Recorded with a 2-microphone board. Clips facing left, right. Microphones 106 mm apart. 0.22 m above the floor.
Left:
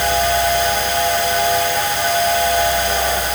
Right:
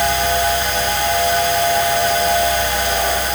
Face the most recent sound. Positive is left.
No sound to turn to.